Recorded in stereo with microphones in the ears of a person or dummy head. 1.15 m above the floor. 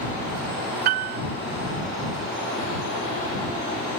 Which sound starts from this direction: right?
A piano, at 0.8 s.